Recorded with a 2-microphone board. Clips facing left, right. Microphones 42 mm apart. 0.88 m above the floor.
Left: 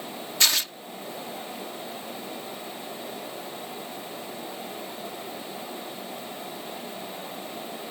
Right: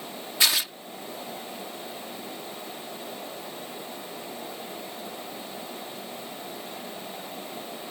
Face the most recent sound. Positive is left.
turn(degrees=-10)  # may be behind; listen again after turning